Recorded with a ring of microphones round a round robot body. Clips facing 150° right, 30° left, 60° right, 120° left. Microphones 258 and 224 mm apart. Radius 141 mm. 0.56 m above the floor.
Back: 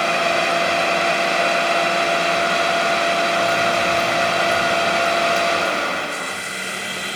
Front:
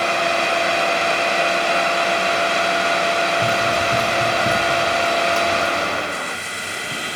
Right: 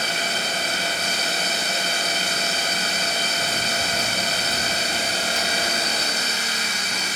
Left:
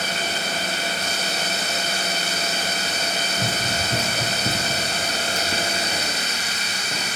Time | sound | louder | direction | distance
3.4 | running footsteps | back 1 dB, left 1 dB | 90° left | 2.5 m